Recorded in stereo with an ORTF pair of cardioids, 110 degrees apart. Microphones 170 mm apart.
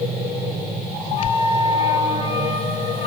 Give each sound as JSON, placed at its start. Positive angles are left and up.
{"t": 1.2, "sound": "a flute", "azimuth_deg": 40, "distance_m": 4.5}